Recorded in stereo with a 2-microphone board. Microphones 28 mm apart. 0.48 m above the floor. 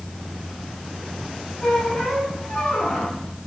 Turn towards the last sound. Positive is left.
turn(degrees=55)  # may be behind; listen again after turning